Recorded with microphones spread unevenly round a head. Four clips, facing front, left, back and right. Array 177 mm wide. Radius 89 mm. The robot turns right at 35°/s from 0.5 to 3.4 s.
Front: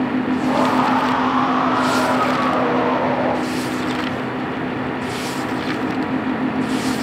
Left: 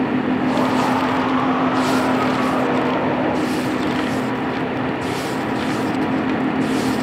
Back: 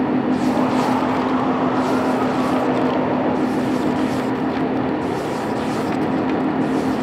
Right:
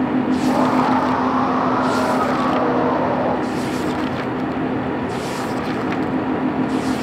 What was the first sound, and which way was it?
Only background noise.